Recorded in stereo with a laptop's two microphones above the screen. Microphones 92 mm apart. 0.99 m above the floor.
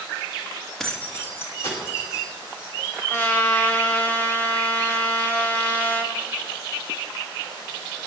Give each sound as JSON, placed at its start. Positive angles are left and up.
{"t": 0.8, "sound": "keys jangling", "side_deg": 5, "distance_m": 0.5}
{"t": 3.1, "sound": "a trumpet", "side_deg": 20, "distance_m": 1.0}